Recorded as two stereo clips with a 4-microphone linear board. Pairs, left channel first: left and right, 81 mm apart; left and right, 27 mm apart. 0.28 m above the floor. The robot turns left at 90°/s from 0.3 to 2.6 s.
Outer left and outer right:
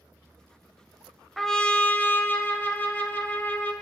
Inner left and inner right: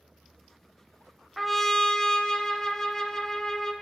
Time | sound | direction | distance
1.4 | a trumpet | 5° left (ahead or behind) | 0.5 m